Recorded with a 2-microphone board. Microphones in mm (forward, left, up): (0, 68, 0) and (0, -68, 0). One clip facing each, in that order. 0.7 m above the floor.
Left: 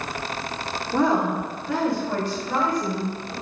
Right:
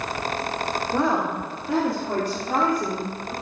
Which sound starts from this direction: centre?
A woman speaking, at 0.9 s.